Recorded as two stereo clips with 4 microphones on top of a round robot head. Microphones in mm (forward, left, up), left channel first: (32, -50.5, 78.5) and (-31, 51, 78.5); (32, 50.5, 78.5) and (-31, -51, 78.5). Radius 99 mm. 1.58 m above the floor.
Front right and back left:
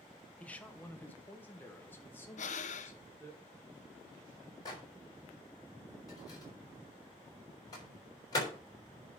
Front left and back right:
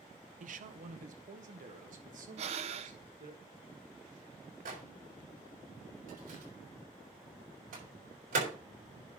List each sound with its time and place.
0.4 s a man speaking: 135° right, 1.2 m; by 3.4 s 130° right, 3.5 m
2.4 s breathing: 85° right, 0.7 m
4.7 s a microwave: 115° right, 6 m